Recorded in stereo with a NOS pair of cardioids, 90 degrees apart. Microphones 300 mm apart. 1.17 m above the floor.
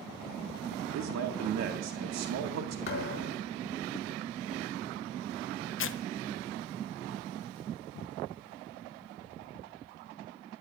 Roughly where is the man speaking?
Ahead right.